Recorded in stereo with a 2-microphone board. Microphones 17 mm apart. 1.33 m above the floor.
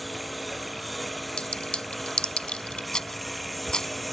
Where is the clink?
75° left (ahead or behind).